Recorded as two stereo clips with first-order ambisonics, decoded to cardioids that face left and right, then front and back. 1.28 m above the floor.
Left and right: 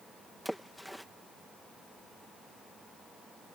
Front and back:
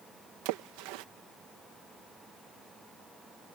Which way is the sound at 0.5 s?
Straight behind.